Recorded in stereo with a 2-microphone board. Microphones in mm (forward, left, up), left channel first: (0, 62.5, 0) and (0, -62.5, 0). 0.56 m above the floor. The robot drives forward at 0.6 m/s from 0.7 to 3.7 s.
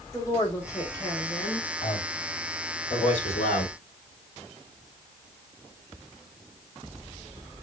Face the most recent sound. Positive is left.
turn(degrees=65)  # may be behind; listen again after turning